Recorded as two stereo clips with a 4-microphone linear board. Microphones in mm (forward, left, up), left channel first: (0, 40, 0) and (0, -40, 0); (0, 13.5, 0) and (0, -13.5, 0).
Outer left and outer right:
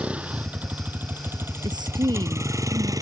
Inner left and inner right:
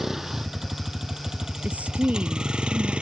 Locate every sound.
0.0 s a vehicle: 15° right (ahead or behind); by 3.0 s 50° right (ahead or behind)
1.6 s a woman speaking: 65° right (ahead or behind)